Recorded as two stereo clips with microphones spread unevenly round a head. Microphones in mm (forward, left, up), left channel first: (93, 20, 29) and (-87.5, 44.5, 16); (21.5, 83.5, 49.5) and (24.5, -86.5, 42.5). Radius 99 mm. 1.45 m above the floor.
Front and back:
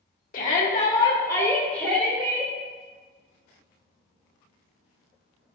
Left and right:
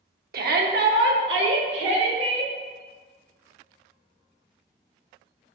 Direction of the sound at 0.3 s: 55° right.